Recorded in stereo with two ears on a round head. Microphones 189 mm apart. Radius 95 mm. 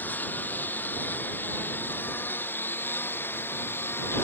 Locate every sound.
0.0 s a lawn mower: 10° left (ahead or behind)